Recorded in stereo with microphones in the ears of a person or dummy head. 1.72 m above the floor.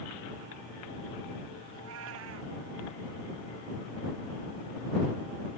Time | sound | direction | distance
1.7 | a cat meowing | 75° right (ahead or behind) | ?